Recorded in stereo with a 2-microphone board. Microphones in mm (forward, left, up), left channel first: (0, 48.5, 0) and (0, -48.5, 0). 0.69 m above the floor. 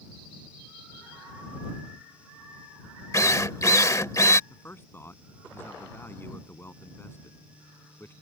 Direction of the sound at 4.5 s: 25° left (ahead or behind).